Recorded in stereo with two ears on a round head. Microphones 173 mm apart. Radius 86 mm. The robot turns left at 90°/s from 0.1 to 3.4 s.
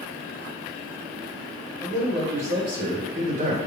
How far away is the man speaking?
About 2.5 m.